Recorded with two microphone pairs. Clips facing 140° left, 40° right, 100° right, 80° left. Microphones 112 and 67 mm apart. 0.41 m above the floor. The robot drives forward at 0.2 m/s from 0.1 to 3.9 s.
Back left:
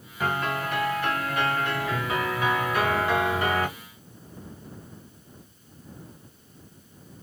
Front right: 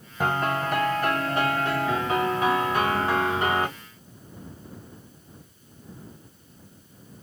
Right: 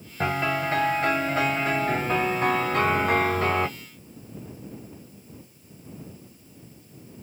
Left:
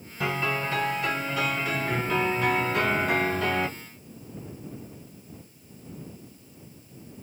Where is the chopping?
No chopping in this recording.